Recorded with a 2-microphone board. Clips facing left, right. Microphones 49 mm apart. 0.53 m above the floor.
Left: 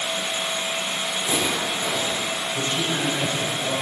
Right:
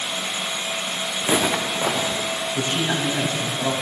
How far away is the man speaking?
About 4 m.